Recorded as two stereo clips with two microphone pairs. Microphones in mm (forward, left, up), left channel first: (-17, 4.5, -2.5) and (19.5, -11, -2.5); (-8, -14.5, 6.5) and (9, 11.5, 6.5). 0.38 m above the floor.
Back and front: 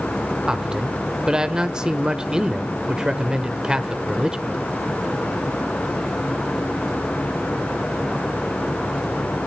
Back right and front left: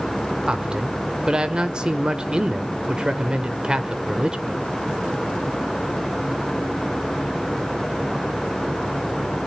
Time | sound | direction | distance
0.5 | a man speaking | 25° left | 1.3 m